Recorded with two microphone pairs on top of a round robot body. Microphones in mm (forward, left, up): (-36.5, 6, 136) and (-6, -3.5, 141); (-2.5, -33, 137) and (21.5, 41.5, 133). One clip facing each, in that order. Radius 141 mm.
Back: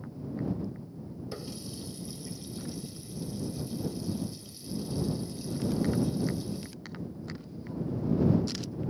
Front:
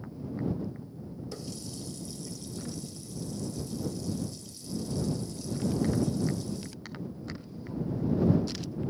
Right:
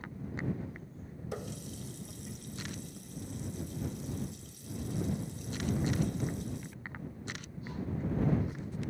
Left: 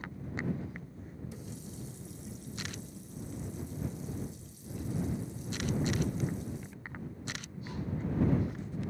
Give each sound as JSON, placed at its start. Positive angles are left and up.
{"t": 1.3, "sound": "a running tap", "azimuth_deg": -130}